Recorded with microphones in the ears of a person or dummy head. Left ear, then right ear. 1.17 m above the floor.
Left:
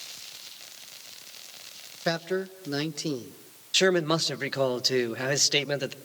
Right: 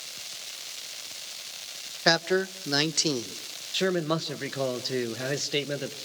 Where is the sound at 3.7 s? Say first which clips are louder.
Left 4 dB; 25° left (ahead or behind), 1.0 m.